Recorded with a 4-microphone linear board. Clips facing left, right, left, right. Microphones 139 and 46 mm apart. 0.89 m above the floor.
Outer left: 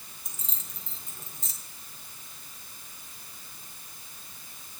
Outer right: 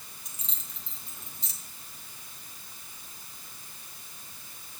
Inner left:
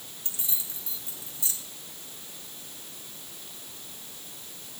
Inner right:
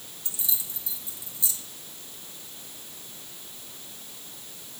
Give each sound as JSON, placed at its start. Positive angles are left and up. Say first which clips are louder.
{"t": 0.2, "sound": "keys jangling", "louder": "outer left 3 dB, inner right 2 dB", "side_deg": 45, "distance_m": 1.8}